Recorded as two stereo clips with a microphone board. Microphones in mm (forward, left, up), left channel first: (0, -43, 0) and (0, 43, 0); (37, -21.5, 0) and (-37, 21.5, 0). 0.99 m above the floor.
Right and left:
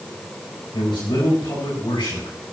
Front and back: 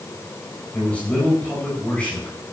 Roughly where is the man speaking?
Right.